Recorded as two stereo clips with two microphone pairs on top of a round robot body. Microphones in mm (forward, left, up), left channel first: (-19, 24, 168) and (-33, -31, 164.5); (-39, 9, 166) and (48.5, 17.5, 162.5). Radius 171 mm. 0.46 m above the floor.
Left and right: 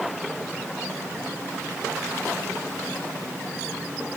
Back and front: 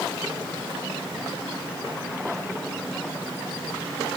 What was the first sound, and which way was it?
Only background noise.